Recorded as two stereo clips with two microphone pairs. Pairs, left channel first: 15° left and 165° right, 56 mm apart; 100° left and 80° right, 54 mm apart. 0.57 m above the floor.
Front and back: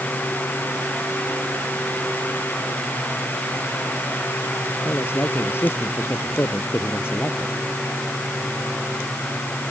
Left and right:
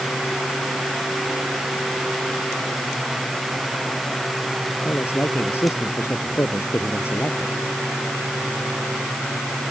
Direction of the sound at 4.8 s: 60° left.